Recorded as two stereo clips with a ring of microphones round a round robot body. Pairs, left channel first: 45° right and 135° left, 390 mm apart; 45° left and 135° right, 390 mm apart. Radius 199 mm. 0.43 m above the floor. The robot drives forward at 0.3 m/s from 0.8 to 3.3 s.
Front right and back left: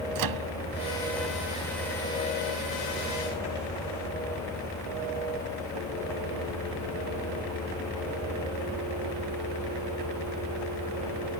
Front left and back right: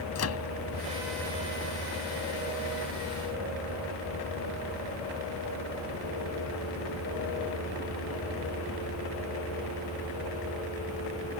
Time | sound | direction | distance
0.1 | a microwave | 95° left | ?